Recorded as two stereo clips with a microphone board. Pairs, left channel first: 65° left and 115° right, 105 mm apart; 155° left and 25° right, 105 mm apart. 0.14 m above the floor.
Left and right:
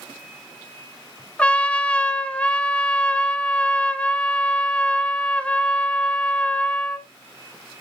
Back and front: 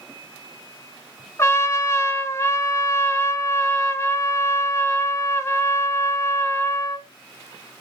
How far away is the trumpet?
About 1.1 m.